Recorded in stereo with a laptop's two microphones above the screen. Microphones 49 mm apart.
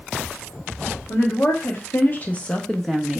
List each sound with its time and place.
1.1 s a woman speaking: 55° left (ahead or behind), 1.1 m; by 3.2 s 10° right (ahead or behind), 0.6 m